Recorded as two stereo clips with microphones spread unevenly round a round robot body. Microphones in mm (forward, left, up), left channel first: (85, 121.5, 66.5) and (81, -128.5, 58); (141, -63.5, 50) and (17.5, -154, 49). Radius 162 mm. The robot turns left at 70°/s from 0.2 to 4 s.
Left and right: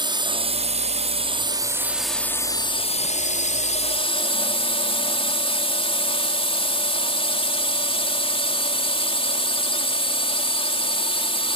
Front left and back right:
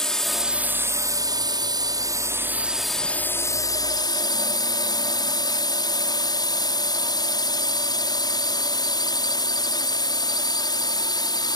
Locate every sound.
0.0 s a drone: 45° right; by 11.6 s 45° left